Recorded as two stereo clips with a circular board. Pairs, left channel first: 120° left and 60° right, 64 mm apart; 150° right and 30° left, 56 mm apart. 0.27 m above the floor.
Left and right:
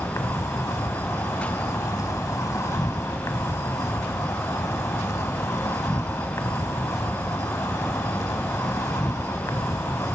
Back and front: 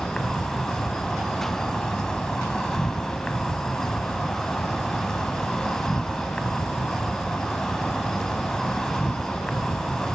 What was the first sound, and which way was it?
An insect, 135° left.